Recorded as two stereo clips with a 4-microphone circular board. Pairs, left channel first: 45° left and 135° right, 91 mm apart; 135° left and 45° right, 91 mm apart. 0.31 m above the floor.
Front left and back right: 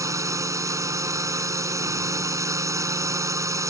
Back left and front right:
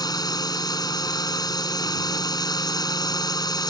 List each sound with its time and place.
0.0 s a drone: 175° left